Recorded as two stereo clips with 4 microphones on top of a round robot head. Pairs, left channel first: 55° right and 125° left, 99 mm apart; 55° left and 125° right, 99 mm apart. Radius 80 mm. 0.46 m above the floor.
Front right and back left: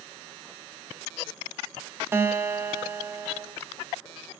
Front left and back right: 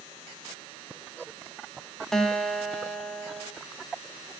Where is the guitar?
130° left, 1.1 m.